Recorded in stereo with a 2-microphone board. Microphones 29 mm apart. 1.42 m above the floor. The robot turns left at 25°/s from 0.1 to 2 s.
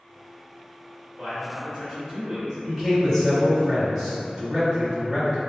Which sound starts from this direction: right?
A man speaking, at 1.2 s.